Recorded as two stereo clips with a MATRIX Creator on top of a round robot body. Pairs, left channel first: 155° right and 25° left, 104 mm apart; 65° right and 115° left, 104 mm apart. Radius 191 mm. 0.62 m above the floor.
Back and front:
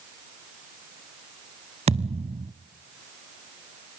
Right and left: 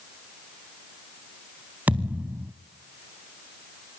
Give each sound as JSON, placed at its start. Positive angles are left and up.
{"t": 1.9, "sound": "a thud", "azimuth_deg": 35, "distance_m": 0.7}